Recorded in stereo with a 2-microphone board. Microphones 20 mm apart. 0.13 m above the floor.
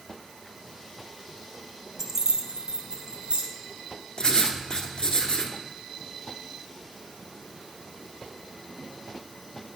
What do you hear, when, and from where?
2.0 s keys jangling: 20° right (ahead or behind), 1.0 m; by 3.4 s 55° right (ahead or behind), 2.5 m
4.2 s writing: 45° left (ahead or behind), 1.2 m